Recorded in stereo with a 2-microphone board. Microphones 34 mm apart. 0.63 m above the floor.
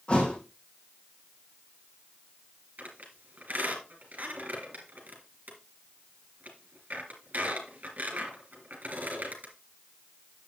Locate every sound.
0.1 s a thud: 30° left (ahead or behind), 3 m
2.8 s a squeak: 50° right (ahead or behind), 3.5 m